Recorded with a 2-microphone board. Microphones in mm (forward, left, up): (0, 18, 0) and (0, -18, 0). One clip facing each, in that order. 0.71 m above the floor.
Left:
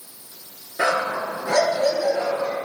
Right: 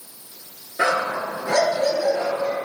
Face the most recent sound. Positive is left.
turn(degrees=-20)  # may be behind; listen again after turning